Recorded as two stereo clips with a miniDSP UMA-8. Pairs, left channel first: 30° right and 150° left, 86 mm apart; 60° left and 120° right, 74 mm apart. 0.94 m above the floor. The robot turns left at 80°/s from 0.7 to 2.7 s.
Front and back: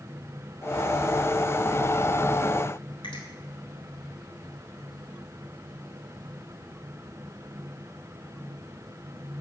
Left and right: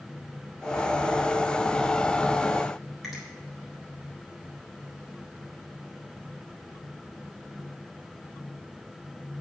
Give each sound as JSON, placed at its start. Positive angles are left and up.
{"t": 3.0, "sound": "a finger snap", "azimuth_deg": -35, "distance_m": 4.0}